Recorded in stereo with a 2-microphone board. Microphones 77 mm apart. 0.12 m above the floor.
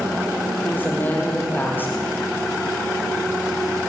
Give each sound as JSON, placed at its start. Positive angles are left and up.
{"t": 0.6, "sound": "a woman speaking", "side_deg": 30, "distance_m": 5.5}